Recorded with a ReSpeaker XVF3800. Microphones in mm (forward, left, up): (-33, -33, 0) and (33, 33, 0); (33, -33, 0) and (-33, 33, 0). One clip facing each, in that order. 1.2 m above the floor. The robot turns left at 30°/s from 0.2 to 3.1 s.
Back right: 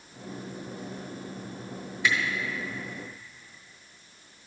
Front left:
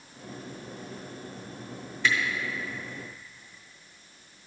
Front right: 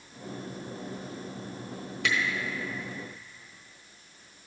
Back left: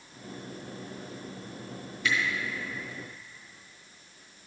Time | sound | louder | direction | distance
2.0 | a camera shutter | even, even | 55° right | 1.4 m